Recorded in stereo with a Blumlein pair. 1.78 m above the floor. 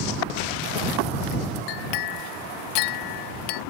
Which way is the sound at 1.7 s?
45° left.